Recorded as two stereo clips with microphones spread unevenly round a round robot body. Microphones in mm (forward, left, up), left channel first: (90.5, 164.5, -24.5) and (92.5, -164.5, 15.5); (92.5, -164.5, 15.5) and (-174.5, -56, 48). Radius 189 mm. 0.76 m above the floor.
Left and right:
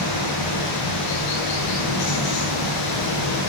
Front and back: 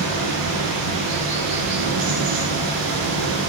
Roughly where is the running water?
Behind left.